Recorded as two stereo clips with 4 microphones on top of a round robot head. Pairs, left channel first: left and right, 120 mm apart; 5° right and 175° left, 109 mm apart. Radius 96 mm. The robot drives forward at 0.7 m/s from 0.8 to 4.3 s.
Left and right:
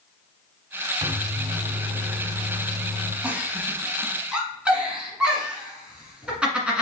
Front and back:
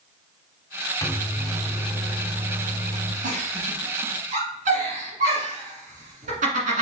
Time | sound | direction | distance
1.0 | a microwave | 55° right | 0.8 m
3.2 | a giggle | 165° right | 1.2 m